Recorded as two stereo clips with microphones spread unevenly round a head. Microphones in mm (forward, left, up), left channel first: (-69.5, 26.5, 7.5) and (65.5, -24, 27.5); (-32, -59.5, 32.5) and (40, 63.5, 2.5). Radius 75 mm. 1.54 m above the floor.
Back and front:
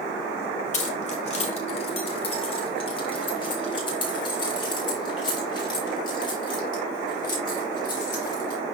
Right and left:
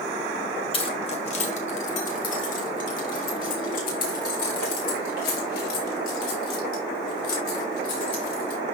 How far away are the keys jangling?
About 1.4 m.